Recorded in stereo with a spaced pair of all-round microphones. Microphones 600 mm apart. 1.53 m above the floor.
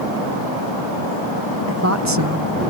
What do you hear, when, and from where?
1.7 s a woman speaking: 20° right (ahead or behind); by 2.7 s 45° right (ahead or behind)